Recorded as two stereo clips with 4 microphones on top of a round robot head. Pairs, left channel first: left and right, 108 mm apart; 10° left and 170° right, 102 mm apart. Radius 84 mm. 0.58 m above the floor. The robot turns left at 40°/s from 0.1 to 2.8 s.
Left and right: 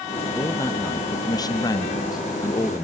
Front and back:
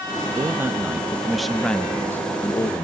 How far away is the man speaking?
About 0.6 m.